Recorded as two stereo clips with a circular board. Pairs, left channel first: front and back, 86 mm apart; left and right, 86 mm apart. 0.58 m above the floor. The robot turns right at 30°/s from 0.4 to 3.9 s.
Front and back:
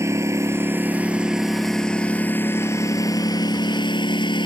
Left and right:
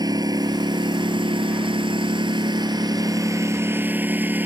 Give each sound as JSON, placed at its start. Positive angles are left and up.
{"t": 0.0, "sound": "a lawn mower", "azimuth_deg": -125}